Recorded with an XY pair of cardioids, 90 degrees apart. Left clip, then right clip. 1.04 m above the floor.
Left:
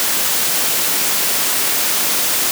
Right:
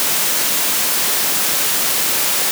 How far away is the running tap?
I don't hear a running tap.